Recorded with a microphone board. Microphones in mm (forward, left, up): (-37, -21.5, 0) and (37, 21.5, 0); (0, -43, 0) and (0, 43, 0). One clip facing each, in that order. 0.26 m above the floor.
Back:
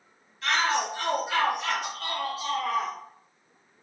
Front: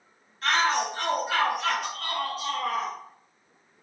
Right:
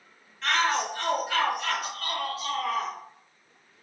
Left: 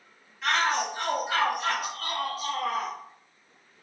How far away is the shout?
About 2 m.